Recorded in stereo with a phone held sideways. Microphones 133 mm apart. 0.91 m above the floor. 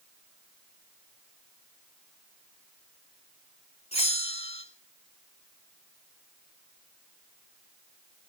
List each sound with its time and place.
3.9 s a bell: 50° left (ahead or behind), 2.5 m